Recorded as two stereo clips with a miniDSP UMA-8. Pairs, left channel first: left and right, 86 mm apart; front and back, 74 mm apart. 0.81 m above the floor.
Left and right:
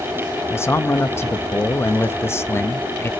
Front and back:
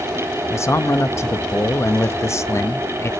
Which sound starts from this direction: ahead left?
A man speaking, at 0.5 s.